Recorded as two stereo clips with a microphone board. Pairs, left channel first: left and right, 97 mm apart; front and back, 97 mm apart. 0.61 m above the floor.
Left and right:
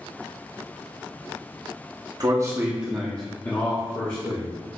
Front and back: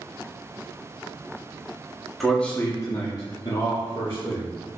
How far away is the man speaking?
About 0.7 m.